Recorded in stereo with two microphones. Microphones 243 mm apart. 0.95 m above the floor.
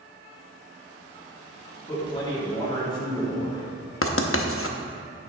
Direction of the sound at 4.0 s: 55° left (ahead or behind).